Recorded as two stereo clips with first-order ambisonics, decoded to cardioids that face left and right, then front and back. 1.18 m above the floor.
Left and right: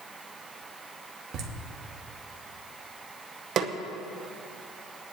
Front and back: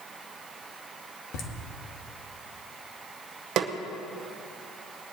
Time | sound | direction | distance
1.3 | laughter | 35° right | 1.9 m
3.6 | a snare drum | 140° right | 0.8 m